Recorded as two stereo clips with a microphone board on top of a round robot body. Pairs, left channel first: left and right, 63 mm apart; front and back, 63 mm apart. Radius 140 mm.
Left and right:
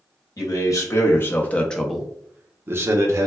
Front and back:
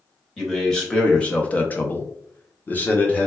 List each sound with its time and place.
0.4 s a man speaking: 80° left, 1.1 m; by 3.3 s 60° right, 1.1 m